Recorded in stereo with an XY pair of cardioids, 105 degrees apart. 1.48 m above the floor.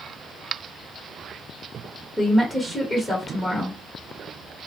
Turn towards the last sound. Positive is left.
turn(degrees=20)